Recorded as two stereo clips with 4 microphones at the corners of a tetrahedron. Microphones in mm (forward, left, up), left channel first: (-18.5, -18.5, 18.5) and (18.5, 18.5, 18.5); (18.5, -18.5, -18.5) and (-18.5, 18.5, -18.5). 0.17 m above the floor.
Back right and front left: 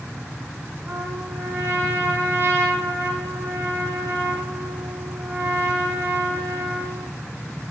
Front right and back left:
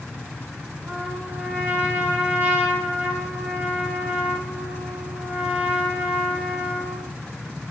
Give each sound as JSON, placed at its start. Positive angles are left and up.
{"t": 0.9, "sound": "a trumpet", "azimuth_deg": 85, "distance_m": 6.0}